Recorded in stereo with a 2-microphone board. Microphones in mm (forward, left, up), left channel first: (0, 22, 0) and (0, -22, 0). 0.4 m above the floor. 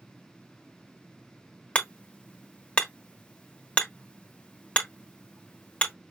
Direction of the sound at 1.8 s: 30° left (ahead or behind).